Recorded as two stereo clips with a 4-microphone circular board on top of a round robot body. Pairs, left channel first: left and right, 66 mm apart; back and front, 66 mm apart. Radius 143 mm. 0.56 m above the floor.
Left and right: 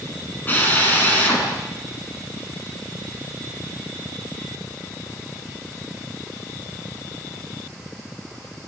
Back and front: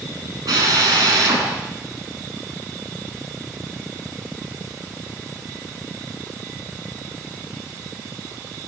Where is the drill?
25° left, 8 m.